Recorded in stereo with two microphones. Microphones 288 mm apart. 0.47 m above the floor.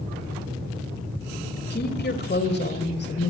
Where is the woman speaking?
35° left (ahead or behind), 2.5 m.